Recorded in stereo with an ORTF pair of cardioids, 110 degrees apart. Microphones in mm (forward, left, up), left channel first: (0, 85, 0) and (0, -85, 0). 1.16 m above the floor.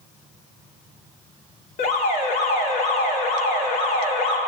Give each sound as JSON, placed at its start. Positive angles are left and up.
{"t": 1.8, "sound": "an alarm", "azimuth_deg": 55, "distance_m": 2.5}